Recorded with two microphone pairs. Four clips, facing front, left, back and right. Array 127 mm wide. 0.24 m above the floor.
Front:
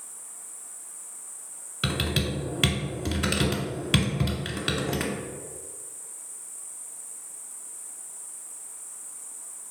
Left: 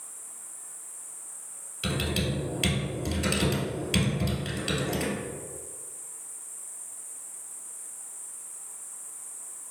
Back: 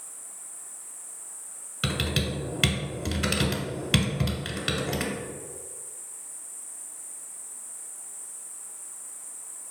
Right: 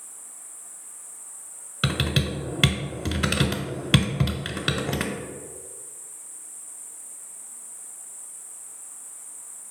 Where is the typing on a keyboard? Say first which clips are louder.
Right 3 dB, front 1 dB; 75° right, 0.6 m.